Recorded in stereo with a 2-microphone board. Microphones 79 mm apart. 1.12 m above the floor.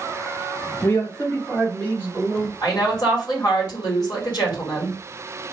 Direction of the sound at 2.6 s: 60° left (ahead or behind).